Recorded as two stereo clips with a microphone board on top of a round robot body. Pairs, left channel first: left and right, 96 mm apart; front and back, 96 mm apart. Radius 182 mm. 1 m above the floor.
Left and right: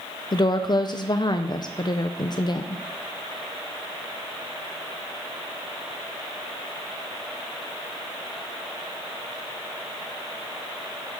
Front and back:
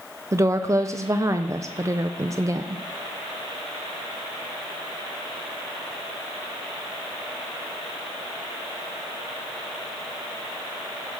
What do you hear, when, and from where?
0.3 s a woman speaking: 125° left, 0.6 m